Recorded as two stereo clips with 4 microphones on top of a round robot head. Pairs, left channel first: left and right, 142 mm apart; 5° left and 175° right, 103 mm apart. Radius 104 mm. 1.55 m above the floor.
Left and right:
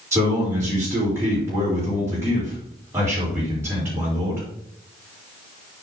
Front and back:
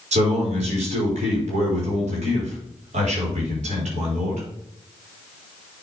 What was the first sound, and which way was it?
A man speaking, 165° right.